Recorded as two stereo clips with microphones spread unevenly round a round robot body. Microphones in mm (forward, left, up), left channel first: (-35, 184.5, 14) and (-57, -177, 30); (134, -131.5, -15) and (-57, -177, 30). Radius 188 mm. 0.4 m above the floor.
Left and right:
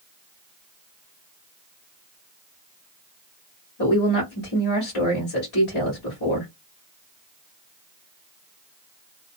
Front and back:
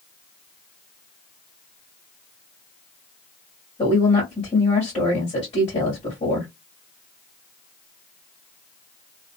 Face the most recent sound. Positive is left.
turn(degrees=55)